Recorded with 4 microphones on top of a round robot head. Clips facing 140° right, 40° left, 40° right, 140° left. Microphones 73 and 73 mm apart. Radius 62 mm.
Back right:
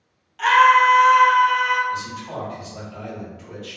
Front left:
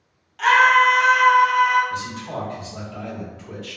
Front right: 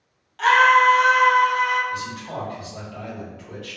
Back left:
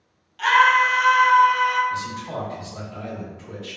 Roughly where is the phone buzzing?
No phone buzzing in this recording.